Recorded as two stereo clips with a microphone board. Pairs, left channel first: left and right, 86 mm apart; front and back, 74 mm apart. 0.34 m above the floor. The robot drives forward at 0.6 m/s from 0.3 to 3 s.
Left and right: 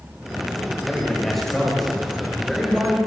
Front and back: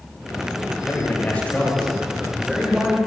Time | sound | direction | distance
0.9 | a man speaking | 5° left | 1.6 m